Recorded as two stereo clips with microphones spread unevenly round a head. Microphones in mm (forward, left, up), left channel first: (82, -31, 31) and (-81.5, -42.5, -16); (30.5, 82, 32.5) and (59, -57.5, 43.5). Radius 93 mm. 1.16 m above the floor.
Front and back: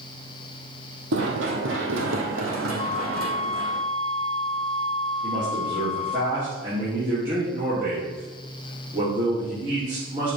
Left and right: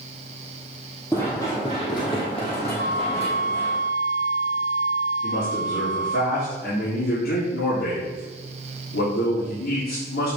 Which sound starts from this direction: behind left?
A man speaking, at 5.2 s.